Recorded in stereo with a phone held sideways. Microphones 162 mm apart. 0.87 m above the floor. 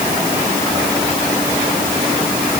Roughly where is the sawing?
No sawing in this recording.